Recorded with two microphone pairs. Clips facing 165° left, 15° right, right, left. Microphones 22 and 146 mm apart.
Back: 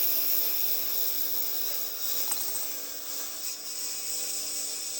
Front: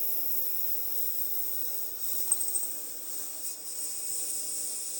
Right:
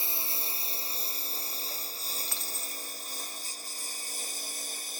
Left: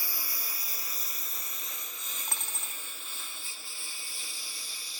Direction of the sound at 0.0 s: 160° right.